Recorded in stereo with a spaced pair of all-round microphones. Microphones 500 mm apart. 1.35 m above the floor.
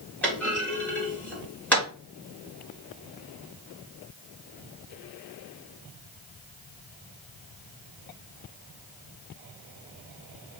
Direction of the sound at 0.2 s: 5° left (ahead or behind).